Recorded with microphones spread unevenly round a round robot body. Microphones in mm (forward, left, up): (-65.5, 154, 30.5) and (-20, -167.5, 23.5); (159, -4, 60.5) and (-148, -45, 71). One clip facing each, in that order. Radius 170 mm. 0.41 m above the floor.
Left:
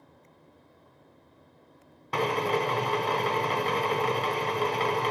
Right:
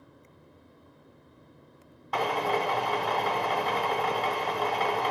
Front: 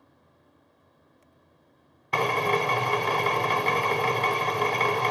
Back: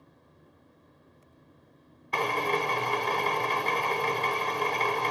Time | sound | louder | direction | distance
2.1 | a drill | left 2 dB, front 4 dB | 35° left | 0.7 m